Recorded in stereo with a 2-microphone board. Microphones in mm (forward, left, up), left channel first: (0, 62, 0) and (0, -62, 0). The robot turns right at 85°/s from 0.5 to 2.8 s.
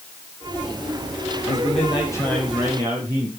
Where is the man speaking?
95° left, 7 m; by 3.3 s 150° right, 7 m.